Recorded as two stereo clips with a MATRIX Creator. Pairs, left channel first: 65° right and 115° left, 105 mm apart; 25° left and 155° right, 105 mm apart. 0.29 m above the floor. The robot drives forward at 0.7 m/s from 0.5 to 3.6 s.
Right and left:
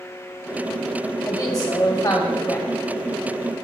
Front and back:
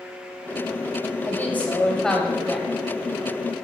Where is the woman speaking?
35° right, 1.7 m; by 2.7 s 90° right, 1.4 m.